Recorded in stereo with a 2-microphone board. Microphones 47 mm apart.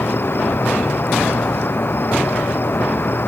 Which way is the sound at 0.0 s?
50° left (ahead or behind).